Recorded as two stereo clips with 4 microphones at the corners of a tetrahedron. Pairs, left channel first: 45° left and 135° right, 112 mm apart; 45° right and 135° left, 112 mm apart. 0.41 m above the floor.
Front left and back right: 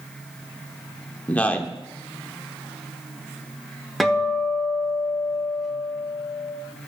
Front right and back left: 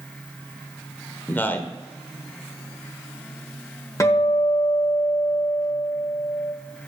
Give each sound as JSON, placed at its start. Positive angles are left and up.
{"t": 1.3, "sound": "a man speaking", "azimuth_deg": -10, "distance_m": 0.8}
{"t": 4.0, "sound": "a guitar", "azimuth_deg": -45, "distance_m": 1.0}